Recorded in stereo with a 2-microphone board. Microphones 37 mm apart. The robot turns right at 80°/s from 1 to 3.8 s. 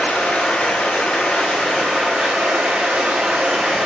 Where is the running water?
125° left, 0.9 m; by 3.9 s 10° right, 0.9 m.